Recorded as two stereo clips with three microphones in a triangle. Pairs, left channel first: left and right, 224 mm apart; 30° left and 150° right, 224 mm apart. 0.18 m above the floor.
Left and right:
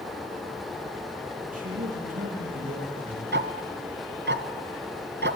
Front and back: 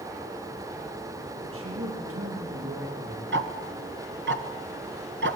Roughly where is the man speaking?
Behind right.